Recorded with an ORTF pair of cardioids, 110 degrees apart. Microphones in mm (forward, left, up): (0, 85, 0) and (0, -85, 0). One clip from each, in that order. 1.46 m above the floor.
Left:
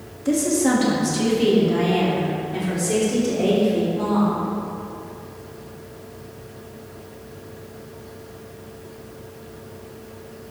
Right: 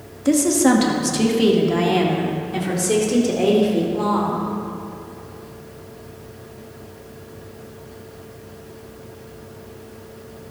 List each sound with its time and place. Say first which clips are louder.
0.2 s a woman speaking: right 4 dB; 30° right, 2 m